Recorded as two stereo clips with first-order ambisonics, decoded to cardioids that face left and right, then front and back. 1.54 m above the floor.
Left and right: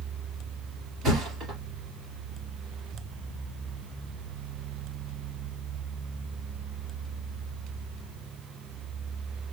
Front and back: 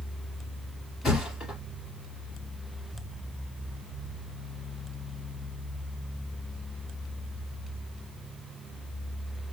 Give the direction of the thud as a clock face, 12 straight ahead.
1 o'clock.